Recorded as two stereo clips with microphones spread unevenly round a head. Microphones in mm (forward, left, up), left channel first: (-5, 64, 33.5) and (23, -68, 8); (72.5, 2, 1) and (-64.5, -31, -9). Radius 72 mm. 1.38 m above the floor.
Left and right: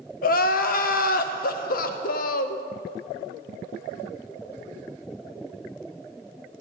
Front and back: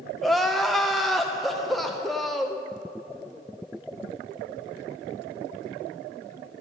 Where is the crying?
105° left, 0.5 m.